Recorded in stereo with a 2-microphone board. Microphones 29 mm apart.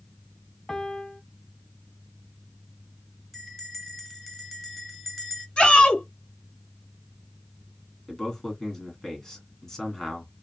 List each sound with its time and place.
0.7 s a piano: 20° left (ahead or behind), 0.7 m
3.3 s a bell: centre (ahead or behind), 1.3 m
5.6 s a shout: 35° left (ahead or behind), 2 m
8.1 s a man speaking: 20° left (ahead or behind), 1.9 m